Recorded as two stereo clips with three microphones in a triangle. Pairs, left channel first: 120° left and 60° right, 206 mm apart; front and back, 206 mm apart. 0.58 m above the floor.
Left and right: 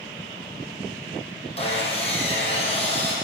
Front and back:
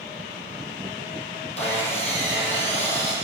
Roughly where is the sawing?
Ahead left.